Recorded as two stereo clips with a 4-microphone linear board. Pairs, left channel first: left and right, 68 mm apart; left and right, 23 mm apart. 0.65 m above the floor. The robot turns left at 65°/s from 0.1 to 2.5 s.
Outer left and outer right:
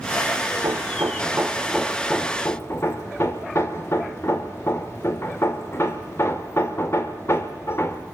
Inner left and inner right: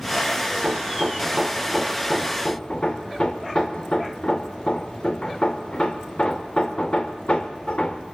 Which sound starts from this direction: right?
Hammering, at 0.5 s.